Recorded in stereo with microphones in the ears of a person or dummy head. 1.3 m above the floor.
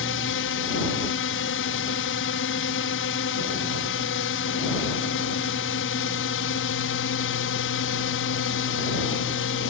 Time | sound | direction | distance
0.0 | a drone | 60° left (ahead or behind) | ?